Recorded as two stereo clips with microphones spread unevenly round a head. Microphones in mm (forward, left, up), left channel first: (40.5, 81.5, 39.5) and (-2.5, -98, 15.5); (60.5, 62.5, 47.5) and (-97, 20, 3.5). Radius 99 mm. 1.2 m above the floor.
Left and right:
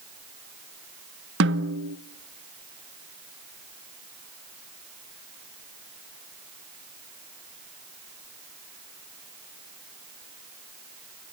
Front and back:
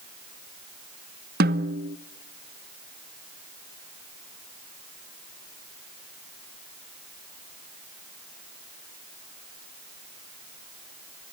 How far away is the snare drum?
About 1.0 m.